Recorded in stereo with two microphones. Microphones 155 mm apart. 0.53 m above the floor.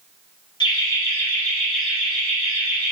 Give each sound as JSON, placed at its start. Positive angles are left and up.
{"t": 0.6, "sound": "laughter", "side_deg": 30, "distance_m": 0.9}